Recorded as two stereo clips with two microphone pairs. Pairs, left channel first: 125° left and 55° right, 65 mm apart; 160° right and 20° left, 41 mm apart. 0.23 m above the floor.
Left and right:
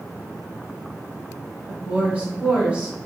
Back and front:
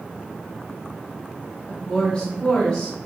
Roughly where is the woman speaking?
Right.